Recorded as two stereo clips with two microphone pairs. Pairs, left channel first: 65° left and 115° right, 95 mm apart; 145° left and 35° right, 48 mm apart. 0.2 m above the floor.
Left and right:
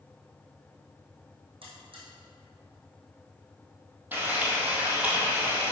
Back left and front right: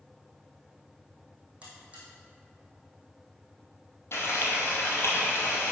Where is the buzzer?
95° right, 2.5 m.